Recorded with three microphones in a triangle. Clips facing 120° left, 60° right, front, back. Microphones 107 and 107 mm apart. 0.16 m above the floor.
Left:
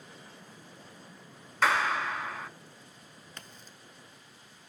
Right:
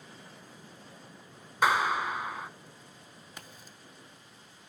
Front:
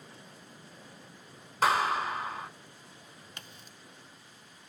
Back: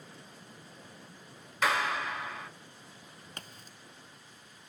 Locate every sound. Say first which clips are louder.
1.6 s a clap: right 1 dB, front 3 dB; 5° left, 1.2 m
3.4 s a crack: right 1 dB, back 3 dB; 140° right, 0.7 m